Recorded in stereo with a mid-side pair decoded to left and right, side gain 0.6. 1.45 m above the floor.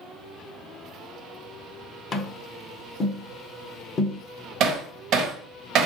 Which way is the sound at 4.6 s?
60° right.